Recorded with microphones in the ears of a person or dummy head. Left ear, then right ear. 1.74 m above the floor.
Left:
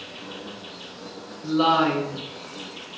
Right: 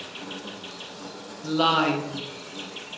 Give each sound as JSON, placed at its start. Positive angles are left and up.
{"t": 0.0, "sound": "an insect", "side_deg": -50, "distance_m": 1.5}
{"t": 1.4, "sound": "a woman speaking", "side_deg": -20, "distance_m": 1.1}